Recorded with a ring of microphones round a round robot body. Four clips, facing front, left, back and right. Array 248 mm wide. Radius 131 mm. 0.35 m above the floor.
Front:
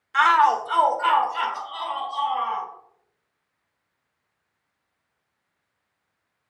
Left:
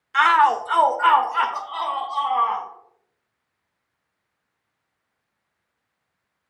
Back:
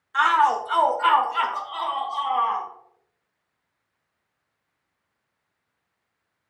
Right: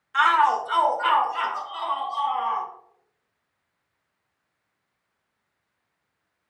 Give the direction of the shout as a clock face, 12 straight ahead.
10 o'clock.